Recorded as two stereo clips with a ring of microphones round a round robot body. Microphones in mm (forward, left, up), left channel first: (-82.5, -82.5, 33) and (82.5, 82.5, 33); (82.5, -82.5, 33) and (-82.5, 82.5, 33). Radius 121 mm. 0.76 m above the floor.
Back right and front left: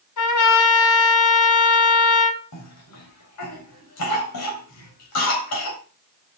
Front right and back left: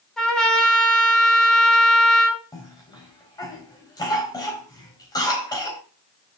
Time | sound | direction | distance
0.2 | a trumpet | 130° right | 3 m
2.5 | a cough | 120° right | 4 m